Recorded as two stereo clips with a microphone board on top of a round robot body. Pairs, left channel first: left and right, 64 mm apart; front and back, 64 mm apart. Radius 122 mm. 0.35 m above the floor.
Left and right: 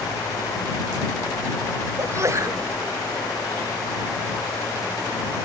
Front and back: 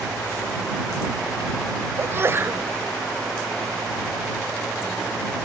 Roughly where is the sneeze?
Behind right.